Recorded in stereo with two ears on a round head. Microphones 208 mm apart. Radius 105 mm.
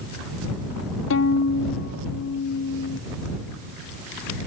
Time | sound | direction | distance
1.1 | a violin | 60° left (ahead or behind) | ?